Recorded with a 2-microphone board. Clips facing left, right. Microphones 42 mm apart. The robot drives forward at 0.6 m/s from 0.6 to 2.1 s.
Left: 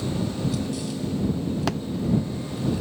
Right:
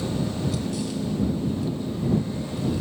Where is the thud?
75° left (ahead or behind).